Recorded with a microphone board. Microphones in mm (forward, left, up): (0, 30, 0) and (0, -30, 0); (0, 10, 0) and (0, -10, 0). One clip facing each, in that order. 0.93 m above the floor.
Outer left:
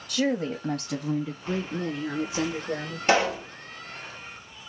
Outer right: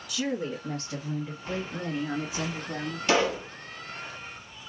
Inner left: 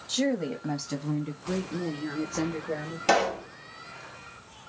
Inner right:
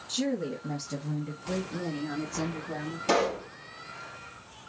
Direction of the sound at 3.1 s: 40° left (ahead or behind).